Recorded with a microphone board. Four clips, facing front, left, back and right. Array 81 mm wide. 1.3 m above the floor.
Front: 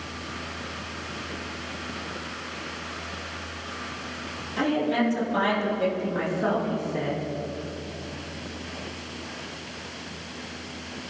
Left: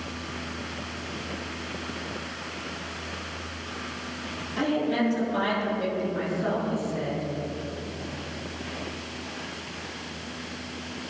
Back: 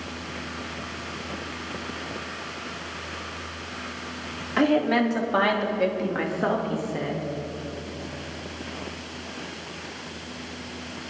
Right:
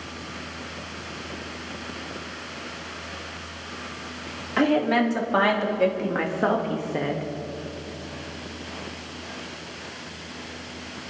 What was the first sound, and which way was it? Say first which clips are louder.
A woman speaking: right 5 dB, back 3 dB; 130° right.